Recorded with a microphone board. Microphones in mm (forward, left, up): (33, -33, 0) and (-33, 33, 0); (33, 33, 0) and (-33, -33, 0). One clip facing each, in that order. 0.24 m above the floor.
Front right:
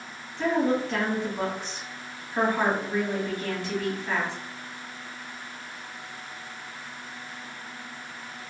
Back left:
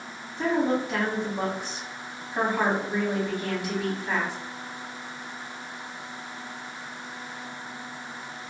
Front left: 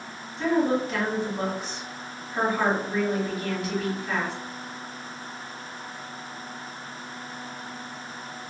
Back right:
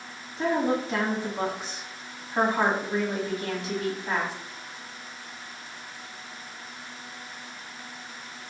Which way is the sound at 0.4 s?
160° right.